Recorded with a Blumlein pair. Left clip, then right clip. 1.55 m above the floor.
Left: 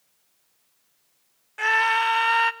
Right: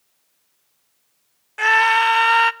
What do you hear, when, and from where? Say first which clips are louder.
1.6 s a scream: right 6 dB; 15° right, 0.7 m